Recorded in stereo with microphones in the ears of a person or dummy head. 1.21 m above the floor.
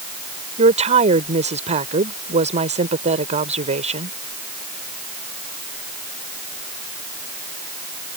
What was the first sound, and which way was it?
A woman speaking, 35° right (ahead or behind).